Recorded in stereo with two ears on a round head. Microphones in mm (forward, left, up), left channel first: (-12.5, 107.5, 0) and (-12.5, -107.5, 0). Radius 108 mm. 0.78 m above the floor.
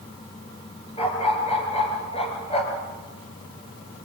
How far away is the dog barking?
About 4 m.